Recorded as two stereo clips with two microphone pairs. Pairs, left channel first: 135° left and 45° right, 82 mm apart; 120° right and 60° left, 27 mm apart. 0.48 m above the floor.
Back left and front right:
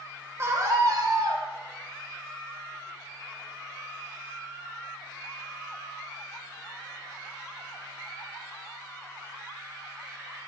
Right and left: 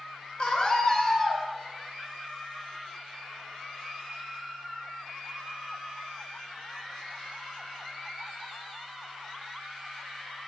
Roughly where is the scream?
Right.